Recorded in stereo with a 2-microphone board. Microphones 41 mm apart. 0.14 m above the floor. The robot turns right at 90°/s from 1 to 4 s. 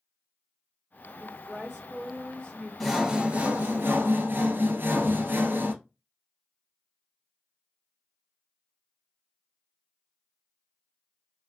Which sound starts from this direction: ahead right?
A woman speaking, at 1.2 s.